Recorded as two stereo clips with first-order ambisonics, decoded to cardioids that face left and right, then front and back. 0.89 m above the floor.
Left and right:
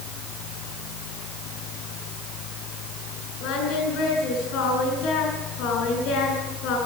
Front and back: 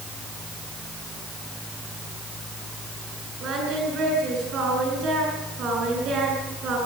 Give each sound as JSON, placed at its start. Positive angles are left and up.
{"t": 3.4, "sound": "singing", "azimuth_deg": 125, "distance_m": 7.5}